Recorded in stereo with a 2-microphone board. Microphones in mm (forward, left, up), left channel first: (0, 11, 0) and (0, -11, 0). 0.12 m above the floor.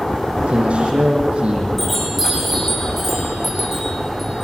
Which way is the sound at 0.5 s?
50° right (ahead or behind).